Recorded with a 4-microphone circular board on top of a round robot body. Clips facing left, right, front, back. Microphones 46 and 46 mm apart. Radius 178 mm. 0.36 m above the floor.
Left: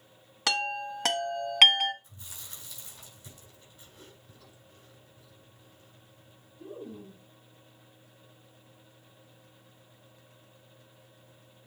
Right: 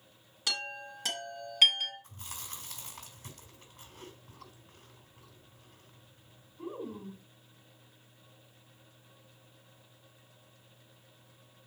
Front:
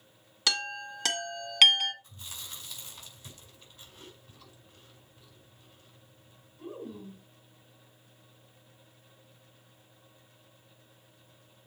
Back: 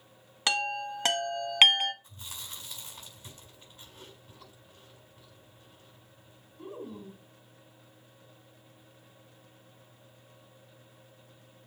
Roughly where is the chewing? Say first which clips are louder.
Right 3 dB, even; behind right.